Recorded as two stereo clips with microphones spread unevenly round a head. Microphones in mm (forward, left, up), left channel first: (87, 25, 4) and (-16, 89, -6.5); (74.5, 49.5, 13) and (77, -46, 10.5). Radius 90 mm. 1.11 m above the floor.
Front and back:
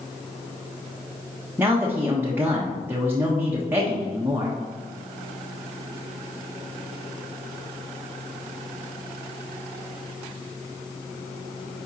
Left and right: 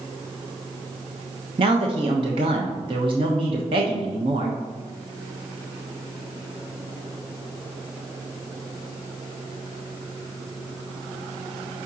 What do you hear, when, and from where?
1.6 s a man speaking: 135° right, 0.9 m